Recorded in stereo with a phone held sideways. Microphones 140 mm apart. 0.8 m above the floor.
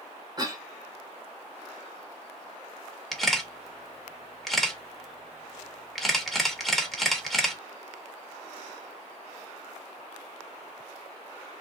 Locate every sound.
0.4 s a cough: 30° right (ahead or behind), 1.6 m
3.1 s a camera shutter: centre (ahead or behind), 1.1 m